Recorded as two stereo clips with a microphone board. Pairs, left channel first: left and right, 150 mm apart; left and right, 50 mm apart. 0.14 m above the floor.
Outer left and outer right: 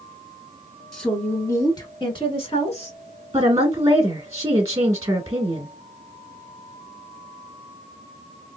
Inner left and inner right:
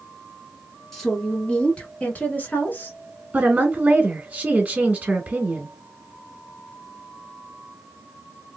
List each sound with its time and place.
0.9 s a woman speaking: 5° left (ahead or behind), 1.1 m; by 3.0 s 50° left (ahead or behind), 1.5 m
3.3 s a woman speaking: 25° right (ahead or behind), 1.2 m